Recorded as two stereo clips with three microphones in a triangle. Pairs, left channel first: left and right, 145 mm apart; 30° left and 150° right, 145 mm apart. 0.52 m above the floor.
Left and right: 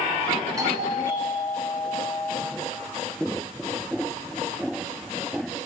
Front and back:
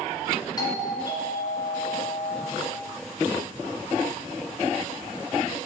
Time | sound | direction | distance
0.6 | a doorbell | 30° right | 2.0 m